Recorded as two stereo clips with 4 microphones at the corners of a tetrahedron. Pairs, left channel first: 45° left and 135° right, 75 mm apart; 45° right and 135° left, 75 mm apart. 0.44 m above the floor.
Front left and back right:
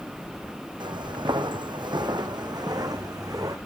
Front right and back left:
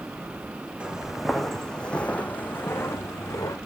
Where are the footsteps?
145° right, 1.5 m; by 3.6 s 95° right, 2 m.